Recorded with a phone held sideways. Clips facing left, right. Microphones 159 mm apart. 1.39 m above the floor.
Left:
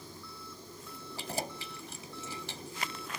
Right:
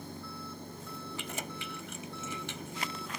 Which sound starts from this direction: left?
Keys jangling, at 1.2 s.